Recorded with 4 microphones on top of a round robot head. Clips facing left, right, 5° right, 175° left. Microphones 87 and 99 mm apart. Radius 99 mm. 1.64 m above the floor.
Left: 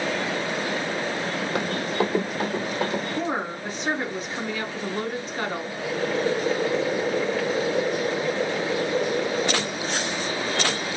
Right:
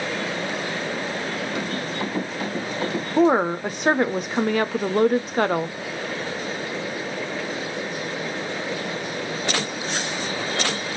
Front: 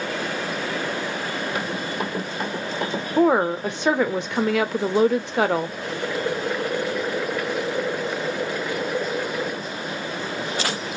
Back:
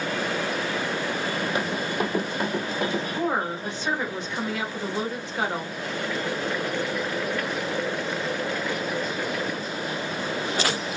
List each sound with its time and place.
1.6 s running footsteps: 120° left, 2 m; by 3.0 s 95° left, 1.7 m
3.2 s a woman speaking: 40° right, 0.5 m
5.8 s boiling: 75° left, 0.9 m